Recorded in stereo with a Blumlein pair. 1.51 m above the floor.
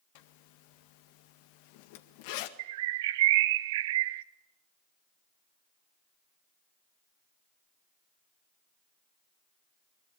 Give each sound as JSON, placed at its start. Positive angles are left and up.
{"t": 0.1, "sound": "a zipper", "azimuth_deg": 45, "distance_m": 1.8}
{"t": 2.6, "sound": "a bird", "azimuth_deg": -55, "distance_m": 0.9}